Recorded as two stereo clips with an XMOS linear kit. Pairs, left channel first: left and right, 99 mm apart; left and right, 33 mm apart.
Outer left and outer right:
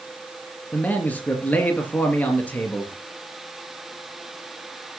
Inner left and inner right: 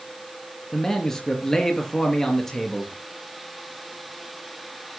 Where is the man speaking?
15° left (ahead or behind), 3.5 m.